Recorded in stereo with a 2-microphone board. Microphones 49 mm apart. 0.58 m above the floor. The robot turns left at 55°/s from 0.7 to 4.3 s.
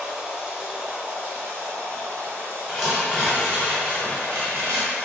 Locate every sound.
0.0 s running water: 20° right, 0.9 m; by 5.0 s 145° left, 0.9 m
2.7 s tearing paper: 15° left, 1.3 m; by 5.0 s 75° right, 1.3 m